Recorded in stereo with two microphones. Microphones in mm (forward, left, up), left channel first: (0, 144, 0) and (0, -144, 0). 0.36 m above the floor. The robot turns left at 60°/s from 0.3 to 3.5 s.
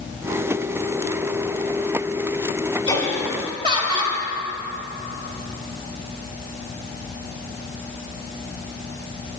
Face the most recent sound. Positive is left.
turn(degrees=-20)